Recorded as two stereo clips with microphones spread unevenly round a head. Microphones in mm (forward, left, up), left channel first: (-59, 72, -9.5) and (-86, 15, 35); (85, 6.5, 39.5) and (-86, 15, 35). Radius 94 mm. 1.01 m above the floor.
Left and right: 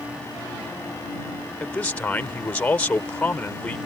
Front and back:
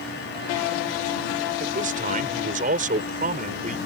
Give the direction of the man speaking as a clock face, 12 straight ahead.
8 o'clock.